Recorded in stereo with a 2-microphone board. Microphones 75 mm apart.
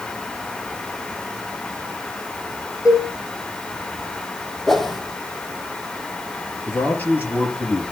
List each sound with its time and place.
2.9 s a cowbell: 45° left (ahead or behind), 5.5 m
4.7 s a whoosh: 5° left (ahead or behind), 1.9 m
6.7 s a man speaking: 25° left (ahead or behind), 4.5 m